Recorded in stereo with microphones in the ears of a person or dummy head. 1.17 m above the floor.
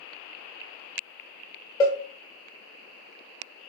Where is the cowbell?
20° left (ahead or behind), 0.6 m.